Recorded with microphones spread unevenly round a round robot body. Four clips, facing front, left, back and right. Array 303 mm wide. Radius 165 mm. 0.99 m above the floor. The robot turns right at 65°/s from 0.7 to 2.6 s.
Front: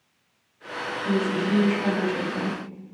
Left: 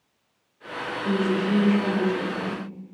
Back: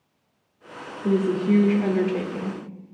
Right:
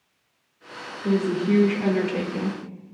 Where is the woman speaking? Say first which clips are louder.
Right 2 dB, back 4 dB; 170° right, 1.7 m; by 2.6 s 70° right, 1.7 m.